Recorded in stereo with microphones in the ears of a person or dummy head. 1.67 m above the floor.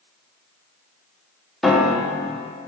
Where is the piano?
Centre (ahead or behind), 0.9 m.